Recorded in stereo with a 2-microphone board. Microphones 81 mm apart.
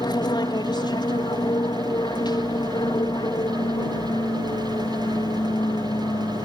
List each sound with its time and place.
0.0 s an aircraft: 60° left (ahead or behind)